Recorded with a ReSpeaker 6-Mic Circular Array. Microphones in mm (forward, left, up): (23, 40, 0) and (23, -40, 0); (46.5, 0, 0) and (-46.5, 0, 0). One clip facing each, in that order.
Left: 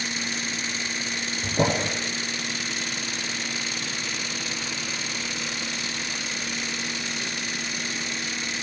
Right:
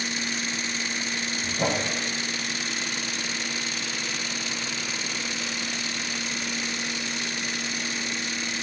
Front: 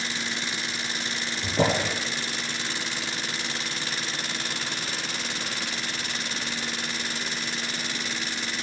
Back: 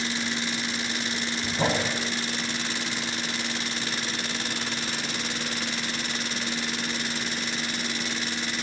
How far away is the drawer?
About 5 m.